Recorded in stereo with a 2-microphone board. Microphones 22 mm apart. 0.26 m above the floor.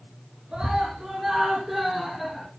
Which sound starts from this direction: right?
A scream, at 0.5 s.